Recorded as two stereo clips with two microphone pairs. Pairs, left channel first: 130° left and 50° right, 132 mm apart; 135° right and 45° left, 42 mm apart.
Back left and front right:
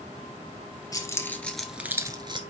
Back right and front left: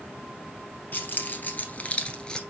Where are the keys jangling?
170° right, 1.9 m; by 2.4 s 75° right, 1.4 m.